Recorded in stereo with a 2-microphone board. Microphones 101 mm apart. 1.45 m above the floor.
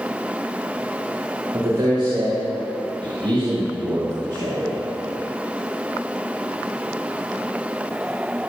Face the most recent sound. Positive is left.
turn(degrees=-50)  # may be behind; listen again after turning